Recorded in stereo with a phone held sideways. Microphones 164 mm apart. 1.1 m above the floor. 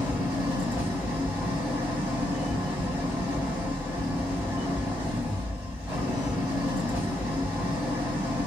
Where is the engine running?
10° right (ahead or behind), 2.5 m.